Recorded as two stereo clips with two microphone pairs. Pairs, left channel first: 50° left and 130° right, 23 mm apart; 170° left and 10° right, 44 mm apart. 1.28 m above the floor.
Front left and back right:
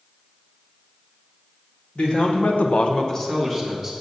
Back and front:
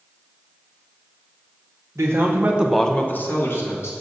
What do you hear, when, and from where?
1.9 s a man speaking: 10° left, 1.3 m; by 3.9 s 145° left, 1.9 m